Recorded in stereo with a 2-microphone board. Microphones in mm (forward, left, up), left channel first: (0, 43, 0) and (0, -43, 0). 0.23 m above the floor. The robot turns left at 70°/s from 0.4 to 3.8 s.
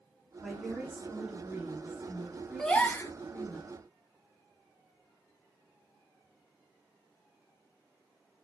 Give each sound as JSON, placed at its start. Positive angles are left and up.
{"t": 0.4, "sound": "a woman speaking", "side_deg": 0, "distance_m": 1.5}
{"t": 2.6, "sound": "a gasp", "azimuth_deg": 175, "distance_m": 0.7}